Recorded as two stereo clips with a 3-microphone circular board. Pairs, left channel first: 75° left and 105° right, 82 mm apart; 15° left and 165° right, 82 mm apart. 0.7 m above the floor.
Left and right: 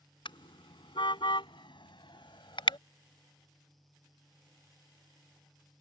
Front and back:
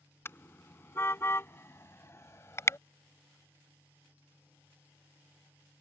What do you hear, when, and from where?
0.2 s a car horn: 75° left; by 2.8 s 70° left